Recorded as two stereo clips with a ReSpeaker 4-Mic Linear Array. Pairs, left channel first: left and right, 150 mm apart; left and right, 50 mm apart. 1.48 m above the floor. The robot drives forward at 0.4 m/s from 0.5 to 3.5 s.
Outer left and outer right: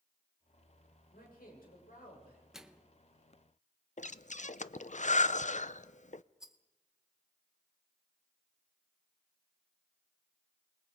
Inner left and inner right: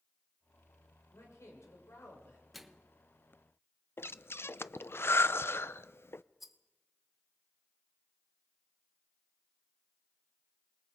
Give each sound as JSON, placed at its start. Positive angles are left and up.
{"t": 1.1, "sound": "a man speaking", "side_deg": 75, "distance_m": 6.5}
{"t": 2.5, "sound": "a microwave", "side_deg": -5, "distance_m": 1.0}
{"t": 4.0, "sound": "breathing", "side_deg": 55, "distance_m": 0.5}
{"t": 6.4, "sound": "a rattle", "side_deg": -5, "distance_m": 1.3}